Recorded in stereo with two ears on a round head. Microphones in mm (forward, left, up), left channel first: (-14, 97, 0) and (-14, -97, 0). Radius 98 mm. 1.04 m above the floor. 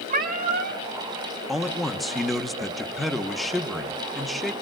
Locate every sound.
0.1 s a cat meowing: 40° right (ahead or behind), 1.0 m
1.5 s a man speaking: centre (ahead or behind), 1.2 m